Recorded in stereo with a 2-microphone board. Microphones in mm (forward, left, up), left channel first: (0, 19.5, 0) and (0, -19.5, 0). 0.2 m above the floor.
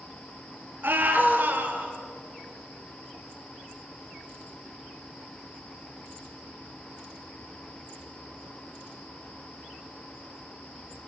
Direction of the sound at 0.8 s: 55° right (ahead or behind).